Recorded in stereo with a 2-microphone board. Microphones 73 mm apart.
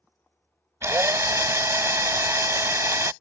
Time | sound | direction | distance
0.8 | a drill | 40° right (ahead or behind) | ?